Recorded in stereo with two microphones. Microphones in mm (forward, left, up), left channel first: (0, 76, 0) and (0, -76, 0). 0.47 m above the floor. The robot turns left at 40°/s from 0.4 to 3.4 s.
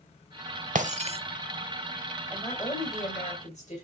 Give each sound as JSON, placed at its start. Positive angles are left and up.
{"t": 0.8, "sound": "breaking glass", "side_deg": -55, "distance_m": 0.7}
{"t": 2.3, "sound": "a woman speaking", "azimuth_deg": 160, "distance_m": 3.0}